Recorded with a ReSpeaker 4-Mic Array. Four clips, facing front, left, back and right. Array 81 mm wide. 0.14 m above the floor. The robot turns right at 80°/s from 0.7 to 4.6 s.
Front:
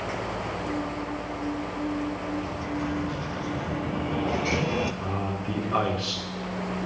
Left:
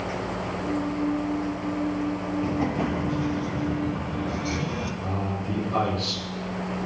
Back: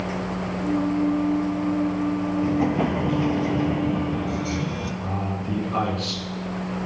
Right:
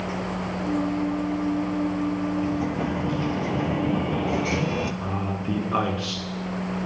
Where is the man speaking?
65° right, 1.5 m.